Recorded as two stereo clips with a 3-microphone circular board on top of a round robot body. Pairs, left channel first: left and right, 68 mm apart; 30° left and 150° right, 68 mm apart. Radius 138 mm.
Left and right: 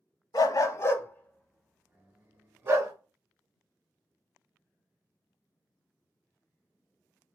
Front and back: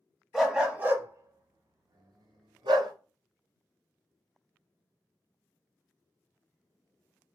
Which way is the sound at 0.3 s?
120° left.